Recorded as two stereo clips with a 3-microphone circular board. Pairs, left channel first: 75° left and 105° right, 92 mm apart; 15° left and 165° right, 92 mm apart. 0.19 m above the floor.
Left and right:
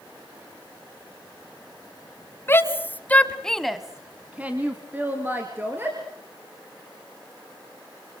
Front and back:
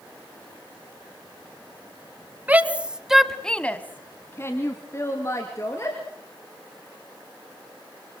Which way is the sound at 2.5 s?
130° left.